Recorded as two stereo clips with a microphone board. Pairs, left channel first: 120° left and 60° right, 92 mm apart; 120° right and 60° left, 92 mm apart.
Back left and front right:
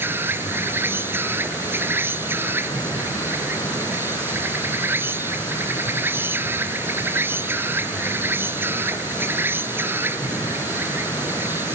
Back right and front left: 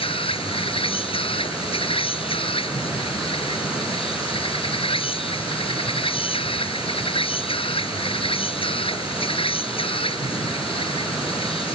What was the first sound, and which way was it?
An insect, 125° right.